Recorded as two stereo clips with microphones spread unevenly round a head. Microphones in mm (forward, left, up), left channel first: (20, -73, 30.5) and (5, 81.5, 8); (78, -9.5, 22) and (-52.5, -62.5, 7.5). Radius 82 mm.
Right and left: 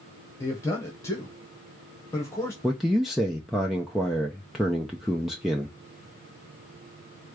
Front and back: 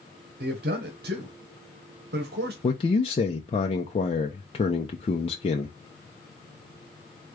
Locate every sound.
0.4 s a man speaking: 160° right, 1.4 m
2.6 s a man speaking: straight ahead, 0.7 m